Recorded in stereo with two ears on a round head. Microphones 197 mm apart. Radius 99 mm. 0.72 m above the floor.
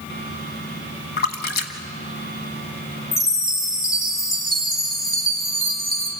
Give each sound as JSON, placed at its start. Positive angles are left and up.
{"t": 1.2, "sound": "a splash", "side_deg": 45, "distance_m": 1.4}
{"t": 3.1, "sound": "a chime", "side_deg": 15, "distance_m": 3.0}